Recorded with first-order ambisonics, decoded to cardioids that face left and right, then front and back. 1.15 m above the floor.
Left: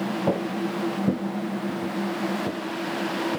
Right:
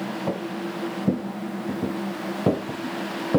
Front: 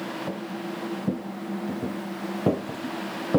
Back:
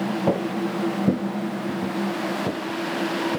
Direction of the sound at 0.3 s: 160° left.